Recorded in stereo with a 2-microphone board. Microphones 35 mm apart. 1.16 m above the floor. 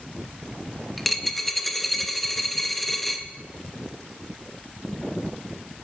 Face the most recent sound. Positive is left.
turn(degrees=5)  # may be behind; listen again after turning